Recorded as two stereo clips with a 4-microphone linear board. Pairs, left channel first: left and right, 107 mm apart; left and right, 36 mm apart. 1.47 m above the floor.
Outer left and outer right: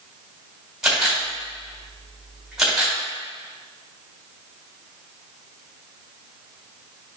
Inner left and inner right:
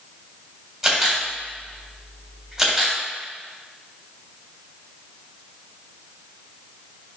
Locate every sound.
0.8 s a camera shutter: 5° right (ahead or behind), 3 m